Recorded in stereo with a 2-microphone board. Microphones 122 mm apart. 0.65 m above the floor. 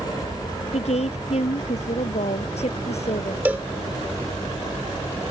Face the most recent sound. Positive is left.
turn(degrees=-15)  # may be behind; listen again after turning